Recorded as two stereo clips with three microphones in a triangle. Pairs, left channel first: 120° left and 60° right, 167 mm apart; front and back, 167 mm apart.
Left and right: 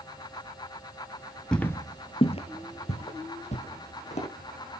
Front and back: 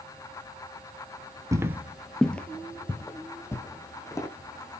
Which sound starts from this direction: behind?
Footsteps, at 1.5 s.